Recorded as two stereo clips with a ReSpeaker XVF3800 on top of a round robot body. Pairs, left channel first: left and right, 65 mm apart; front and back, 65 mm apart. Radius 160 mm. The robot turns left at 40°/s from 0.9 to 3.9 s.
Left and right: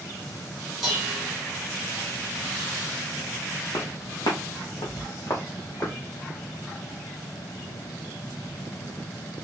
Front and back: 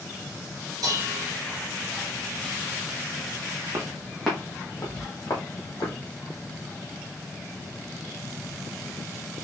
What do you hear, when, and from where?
0.8 s dishes clattering: 175° right, 1.7 m; by 1.3 s 170° left, 1.7 m
3.7 s footsteps: 130° left, 1.1 m; by 6.0 s 35° left, 2.5 m